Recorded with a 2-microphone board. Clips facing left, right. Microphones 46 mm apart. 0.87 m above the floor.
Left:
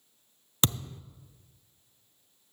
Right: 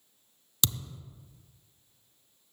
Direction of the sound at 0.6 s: 35° left (ahead or behind).